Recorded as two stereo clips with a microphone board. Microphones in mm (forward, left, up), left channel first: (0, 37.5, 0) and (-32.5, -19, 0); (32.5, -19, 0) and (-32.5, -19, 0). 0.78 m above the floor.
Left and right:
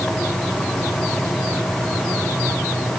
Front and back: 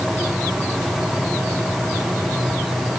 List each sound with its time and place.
Only background noise.